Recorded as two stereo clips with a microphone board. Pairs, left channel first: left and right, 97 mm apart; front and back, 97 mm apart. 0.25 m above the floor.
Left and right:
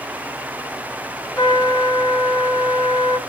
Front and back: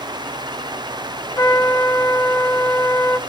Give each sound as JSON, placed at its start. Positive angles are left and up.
{"t": 1.4, "sound": "a trumpet", "azimuth_deg": 50, "distance_m": 2.0}